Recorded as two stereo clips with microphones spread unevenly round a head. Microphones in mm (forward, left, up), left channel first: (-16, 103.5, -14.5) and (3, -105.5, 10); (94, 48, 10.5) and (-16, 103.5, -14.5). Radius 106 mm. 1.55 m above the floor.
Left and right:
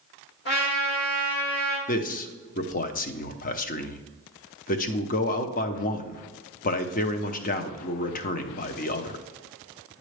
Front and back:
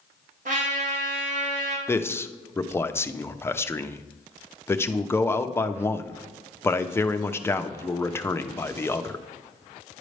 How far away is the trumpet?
About 2 m.